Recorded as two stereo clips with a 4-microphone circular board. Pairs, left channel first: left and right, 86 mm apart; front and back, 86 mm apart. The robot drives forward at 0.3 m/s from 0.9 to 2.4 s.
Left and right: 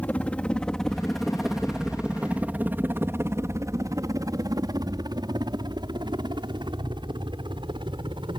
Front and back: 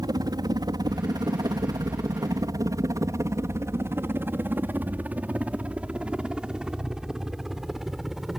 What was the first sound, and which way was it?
A helicopter, 160° left.